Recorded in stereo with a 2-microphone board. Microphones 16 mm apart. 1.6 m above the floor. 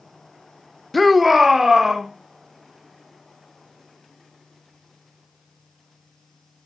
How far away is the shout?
About 0.9 m.